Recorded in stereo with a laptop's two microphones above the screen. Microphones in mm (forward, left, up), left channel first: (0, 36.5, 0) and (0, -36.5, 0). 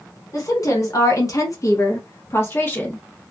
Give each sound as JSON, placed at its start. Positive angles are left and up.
{"t": 0.3, "sound": "a woman speaking", "side_deg": 50, "distance_m": 1.2}